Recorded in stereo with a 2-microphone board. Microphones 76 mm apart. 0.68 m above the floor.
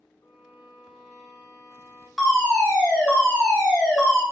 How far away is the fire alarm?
About 1.4 m.